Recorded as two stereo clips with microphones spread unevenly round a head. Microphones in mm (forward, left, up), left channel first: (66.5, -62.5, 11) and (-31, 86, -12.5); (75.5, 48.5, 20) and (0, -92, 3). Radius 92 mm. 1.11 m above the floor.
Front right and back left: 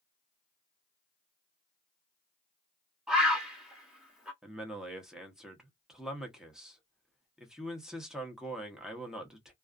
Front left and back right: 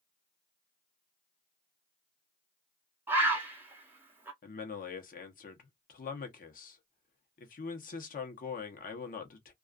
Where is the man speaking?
45° left, 0.9 m.